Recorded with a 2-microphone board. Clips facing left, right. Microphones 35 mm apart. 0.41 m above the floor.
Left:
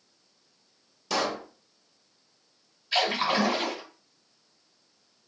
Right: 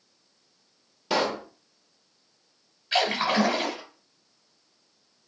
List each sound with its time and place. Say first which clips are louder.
1.1 s a pop: right 3 dB; 30° right (ahead or behind), 0.6 m
2.9 s a splash: right 1 dB; 50° right (ahead or behind), 1.7 m